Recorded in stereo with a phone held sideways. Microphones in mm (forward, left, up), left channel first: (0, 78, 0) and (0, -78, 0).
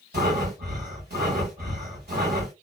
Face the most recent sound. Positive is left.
turn(degrees=-75)  # may be behind; listen again after turning